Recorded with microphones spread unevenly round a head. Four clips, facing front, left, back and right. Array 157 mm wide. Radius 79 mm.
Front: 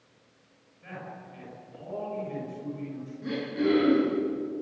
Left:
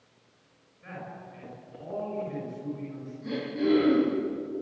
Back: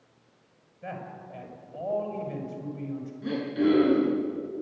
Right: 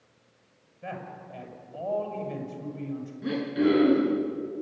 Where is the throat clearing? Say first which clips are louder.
Right 3 dB, back 2 dB; 75° right, 9 m.